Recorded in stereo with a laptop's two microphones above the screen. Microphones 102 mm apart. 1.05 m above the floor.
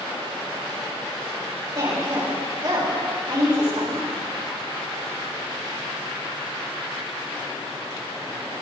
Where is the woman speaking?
55° right (ahead or behind), 6 m.